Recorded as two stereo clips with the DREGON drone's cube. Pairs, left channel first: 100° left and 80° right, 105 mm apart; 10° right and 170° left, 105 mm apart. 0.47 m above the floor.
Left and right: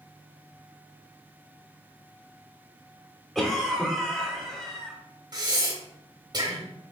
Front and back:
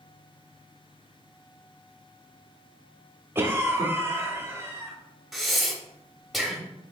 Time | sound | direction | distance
3.4 | a cough | straight behind | 0.7 m
5.3 | breathing | 100° right | 0.8 m